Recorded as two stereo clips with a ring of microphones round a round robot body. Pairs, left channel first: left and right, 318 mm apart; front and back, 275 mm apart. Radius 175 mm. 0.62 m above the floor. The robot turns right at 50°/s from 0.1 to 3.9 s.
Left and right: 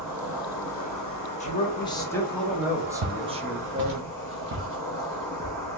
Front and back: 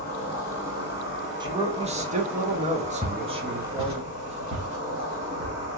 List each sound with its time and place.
0.0 s an insect: 20° right, 2 m; by 5.8 s 170° left, 2 m
1.4 s a man speaking: 125° left, 0.7 m; by 4.0 s 110° right, 0.7 m
3.0 s footsteps: 100° right, 1.2 m; by 5.8 s 165° right, 1.3 m